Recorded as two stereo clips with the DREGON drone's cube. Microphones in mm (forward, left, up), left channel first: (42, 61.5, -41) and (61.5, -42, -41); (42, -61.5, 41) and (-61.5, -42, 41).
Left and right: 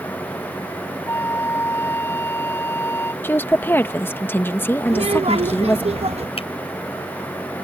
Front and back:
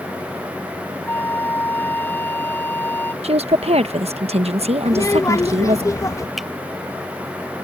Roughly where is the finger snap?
Left.